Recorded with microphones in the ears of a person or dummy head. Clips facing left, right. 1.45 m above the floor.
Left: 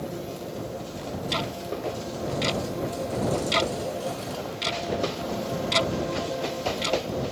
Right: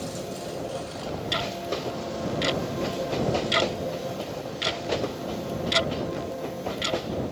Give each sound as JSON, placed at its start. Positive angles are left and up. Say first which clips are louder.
{"t": 1.3, "sound": "ticking", "louder": "right 1 dB", "side_deg": -10}